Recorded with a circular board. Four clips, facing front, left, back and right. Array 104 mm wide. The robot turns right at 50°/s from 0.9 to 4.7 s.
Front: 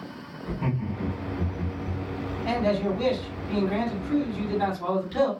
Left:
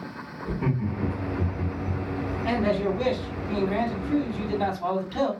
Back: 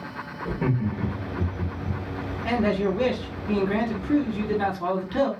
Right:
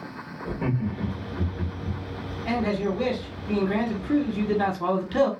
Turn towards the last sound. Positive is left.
turn(degrees=-105)